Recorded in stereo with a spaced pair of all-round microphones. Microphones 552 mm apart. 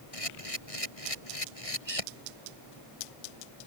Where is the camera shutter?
80° left.